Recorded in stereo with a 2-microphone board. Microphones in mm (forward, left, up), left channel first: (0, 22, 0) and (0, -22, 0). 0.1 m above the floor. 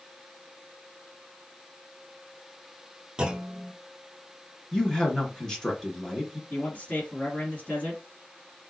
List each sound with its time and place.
3.2 s a clunk: 20° right (ahead or behind), 0.6 m
4.7 s a man speaking: 15° left (ahead or behind), 1.3 m
6.5 s a man speaking: 40° left (ahead or behind), 2 m